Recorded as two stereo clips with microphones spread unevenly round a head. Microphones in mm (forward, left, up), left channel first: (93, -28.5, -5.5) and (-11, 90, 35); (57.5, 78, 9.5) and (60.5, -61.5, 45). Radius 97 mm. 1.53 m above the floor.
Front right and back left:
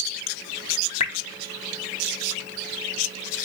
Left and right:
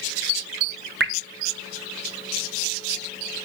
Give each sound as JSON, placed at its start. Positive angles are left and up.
{"t": 1.0, "sound": "dripping", "azimuth_deg": -110, "distance_m": 0.6}